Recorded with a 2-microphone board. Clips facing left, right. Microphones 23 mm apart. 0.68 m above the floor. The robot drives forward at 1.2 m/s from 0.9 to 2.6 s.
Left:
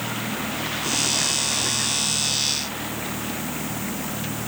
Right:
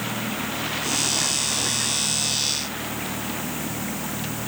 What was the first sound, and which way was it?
Only background noise.